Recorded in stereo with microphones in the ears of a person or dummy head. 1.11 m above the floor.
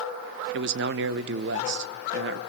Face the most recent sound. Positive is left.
turn(degrees=-55)  # may be behind; listen again after turning